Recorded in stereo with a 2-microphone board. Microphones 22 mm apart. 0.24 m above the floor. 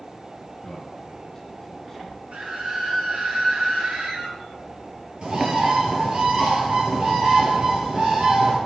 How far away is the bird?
About 3.5 m.